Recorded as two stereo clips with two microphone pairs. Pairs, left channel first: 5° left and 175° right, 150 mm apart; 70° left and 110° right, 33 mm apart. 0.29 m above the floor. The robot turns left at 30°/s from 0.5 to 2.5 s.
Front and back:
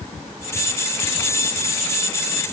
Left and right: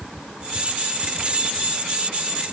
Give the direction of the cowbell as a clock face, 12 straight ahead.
I don't hear a cowbell.